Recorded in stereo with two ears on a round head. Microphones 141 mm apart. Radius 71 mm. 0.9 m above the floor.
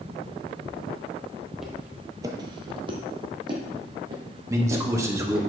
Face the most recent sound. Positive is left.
turn(degrees=-20)  # may be behind; listen again after turning